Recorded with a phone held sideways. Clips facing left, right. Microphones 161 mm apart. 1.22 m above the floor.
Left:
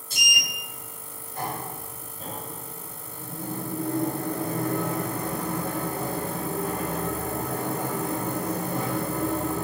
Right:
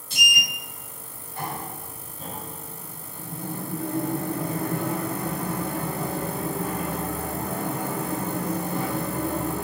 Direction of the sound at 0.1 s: 45° left (ahead or behind).